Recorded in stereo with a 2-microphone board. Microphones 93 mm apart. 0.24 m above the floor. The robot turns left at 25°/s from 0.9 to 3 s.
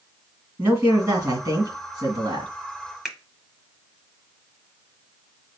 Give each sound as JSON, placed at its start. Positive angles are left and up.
{"t": 0.6, "sound": "a man speaking", "azimuth_deg": -35, "distance_m": 2.0}
{"t": 3.0, "sound": "a finger snap", "side_deg": -5, "distance_m": 0.9}